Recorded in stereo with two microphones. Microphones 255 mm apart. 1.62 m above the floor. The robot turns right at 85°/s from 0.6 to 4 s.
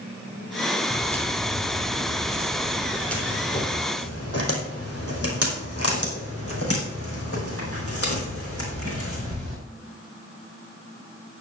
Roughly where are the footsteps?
Left.